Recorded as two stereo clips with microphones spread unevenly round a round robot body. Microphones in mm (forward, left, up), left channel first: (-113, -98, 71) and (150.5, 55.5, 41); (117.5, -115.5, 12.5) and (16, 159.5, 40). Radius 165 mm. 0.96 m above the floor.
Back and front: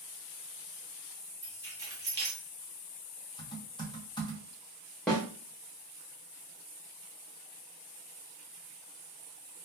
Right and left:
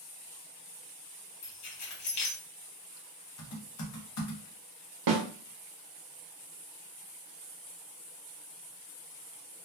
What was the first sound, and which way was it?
Keys jangling, 50° right.